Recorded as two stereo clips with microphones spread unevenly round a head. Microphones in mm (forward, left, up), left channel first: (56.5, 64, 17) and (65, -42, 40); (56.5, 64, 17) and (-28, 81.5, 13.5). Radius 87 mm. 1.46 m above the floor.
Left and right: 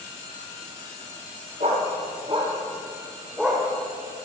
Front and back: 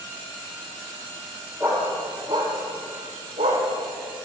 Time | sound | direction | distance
1.6 | a dog barking | 120° right | 1.9 m